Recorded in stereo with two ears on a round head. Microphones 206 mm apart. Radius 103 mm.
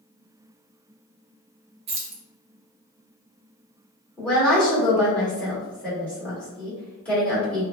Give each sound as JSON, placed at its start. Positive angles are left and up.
{"t": 1.9, "sound": "keys jangling", "side_deg": -25, "distance_m": 0.6}
{"t": 4.2, "sound": "a woman speaking", "side_deg": 5, "distance_m": 1.4}